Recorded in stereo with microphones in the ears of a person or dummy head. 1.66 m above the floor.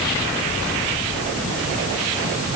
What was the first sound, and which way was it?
Only background noise.